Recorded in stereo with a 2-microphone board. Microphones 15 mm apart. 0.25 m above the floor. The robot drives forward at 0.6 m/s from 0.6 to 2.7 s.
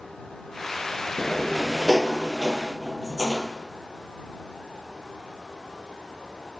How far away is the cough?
No cough in this recording.